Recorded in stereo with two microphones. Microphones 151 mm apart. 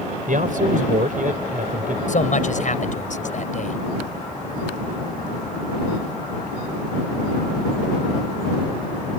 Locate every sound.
0.3 s a man speaking: 75° right (ahead or behind)
2.1 s a man speaking: 65° left (ahead or behind)